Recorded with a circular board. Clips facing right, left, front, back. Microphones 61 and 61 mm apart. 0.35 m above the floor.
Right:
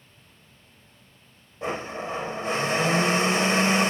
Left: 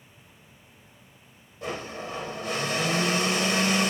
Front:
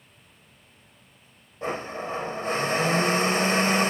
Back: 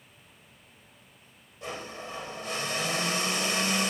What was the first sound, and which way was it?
A blender, 40° right.